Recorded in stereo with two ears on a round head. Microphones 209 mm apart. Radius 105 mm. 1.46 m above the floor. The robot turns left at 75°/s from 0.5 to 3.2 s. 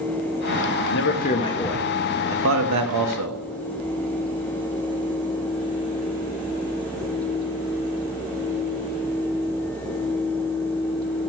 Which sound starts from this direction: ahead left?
A man speaking, at 0.9 s.